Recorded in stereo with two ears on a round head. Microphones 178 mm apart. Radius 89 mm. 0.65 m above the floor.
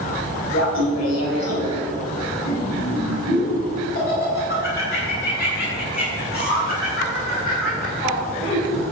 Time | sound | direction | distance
0.5 | laughter | 70° left (ahead or behind) | 4.5 m